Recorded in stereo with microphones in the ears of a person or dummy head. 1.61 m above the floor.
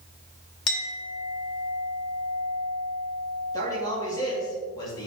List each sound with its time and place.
0.7 s a clink: 55° left (ahead or behind), 0.9 m
3.5 s a man speaking: 15° left (ahead or behind), 3 m